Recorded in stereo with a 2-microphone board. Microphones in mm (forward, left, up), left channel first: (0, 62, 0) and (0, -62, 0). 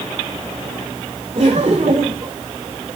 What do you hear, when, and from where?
1.4 s laughter: 45° right (ahead or behind), 2.5 m